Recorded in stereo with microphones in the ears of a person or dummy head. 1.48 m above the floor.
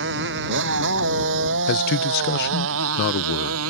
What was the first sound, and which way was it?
A motorcycle, 65° right (ahead or behind).